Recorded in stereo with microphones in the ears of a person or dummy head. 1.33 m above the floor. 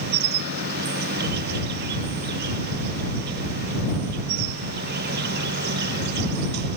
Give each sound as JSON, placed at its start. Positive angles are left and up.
{"t": 0.0, "sound": "an insect", "side_deg": -65}